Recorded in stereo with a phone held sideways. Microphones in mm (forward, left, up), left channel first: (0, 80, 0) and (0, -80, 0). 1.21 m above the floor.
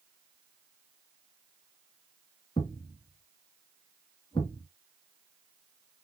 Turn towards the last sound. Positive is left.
turn(degrees=30)  # may be behind; listen again after turning